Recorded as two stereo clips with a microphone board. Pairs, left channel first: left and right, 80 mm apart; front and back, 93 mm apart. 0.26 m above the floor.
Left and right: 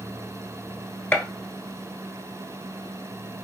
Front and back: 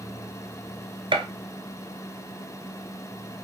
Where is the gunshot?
160° left, 0.9 m.